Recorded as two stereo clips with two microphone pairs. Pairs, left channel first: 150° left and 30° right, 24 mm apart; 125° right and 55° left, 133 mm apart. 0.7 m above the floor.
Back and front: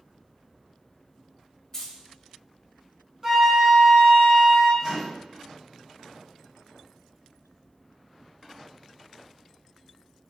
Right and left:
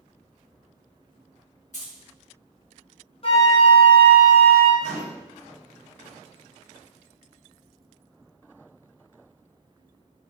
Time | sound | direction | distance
1.7 | keys jangling | 145° right | 0.8 m
3.2 | a flute | 90° right | 0.6 m
4.8 | a microwave | 30° left | 1.5 m